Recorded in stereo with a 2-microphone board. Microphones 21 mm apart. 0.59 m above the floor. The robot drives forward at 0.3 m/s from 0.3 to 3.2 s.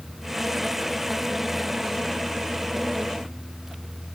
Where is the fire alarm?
No fire alarm in this recording.